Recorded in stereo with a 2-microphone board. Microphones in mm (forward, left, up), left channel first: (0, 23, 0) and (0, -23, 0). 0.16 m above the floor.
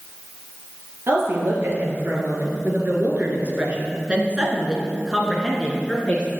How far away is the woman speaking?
About 3 m.